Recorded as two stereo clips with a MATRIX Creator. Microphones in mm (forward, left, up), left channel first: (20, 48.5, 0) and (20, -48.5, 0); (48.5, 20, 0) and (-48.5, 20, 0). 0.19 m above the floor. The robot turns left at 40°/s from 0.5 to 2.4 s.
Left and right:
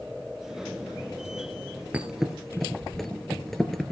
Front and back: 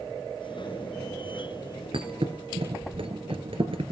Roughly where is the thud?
Behind.